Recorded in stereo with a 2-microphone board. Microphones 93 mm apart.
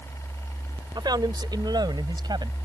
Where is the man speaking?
50° right (ahead or behind).